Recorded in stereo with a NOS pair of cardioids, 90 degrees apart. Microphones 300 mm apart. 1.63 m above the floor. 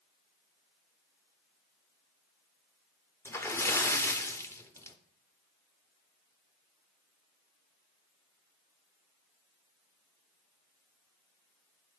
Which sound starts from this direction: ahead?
A splash, at 3.2 s.